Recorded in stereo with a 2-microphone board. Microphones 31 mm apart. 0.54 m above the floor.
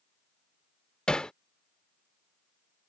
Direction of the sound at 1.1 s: 30° left (ahead or behind).